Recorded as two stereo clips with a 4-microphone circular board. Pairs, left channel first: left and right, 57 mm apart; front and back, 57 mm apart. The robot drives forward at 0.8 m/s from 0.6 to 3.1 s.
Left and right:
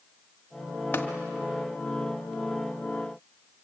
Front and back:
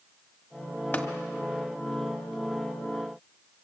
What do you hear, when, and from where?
0.9 s tapping: 45° left, 1.6 m